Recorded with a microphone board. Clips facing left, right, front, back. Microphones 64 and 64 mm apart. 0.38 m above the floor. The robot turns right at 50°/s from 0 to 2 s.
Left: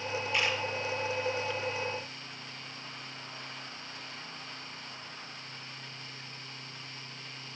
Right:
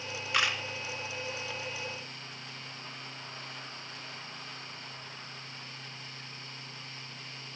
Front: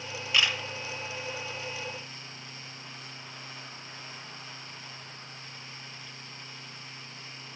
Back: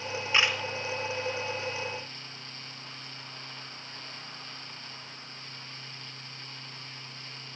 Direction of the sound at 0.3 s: 115° right.